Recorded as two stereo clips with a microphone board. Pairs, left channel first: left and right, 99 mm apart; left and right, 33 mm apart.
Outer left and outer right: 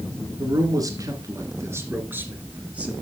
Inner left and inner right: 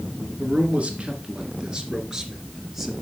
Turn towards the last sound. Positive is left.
turn(degrees=-15)  # may be behind; listen again after turning